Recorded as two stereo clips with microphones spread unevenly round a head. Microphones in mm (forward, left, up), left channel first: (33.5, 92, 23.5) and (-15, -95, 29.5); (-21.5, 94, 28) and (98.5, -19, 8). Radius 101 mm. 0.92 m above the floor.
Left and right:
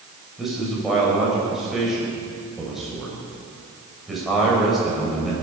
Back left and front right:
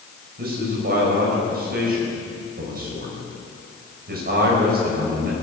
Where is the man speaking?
15° right, 5 m.